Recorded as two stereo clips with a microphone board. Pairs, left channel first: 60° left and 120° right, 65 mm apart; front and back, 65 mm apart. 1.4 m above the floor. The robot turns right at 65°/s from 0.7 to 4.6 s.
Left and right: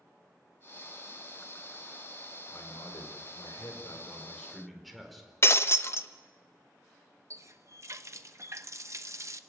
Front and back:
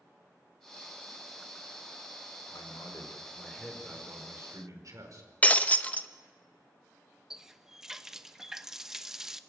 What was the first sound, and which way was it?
A man speaking, 10° left.